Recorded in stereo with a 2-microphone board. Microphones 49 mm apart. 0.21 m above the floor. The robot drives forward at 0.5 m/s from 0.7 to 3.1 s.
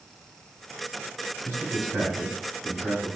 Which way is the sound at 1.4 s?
35° right (ahead or behind).